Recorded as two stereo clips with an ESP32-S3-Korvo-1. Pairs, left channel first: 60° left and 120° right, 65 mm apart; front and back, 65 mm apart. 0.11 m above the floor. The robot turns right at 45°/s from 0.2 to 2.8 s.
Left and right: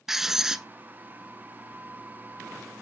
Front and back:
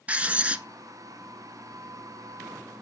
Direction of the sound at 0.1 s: 165° left.